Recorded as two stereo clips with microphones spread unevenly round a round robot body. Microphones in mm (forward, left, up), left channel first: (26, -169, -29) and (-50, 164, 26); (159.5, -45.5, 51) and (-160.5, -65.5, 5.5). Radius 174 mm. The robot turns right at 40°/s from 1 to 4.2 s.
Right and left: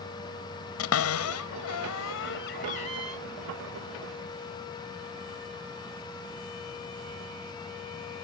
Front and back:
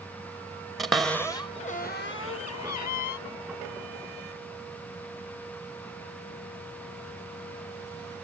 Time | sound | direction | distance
0.8 | a cupboard door | 95° right | ?